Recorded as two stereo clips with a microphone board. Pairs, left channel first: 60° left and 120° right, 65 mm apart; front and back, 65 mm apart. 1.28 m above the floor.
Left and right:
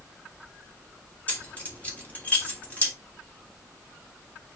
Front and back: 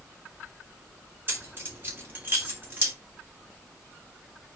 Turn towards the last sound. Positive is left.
turn(degrees=125)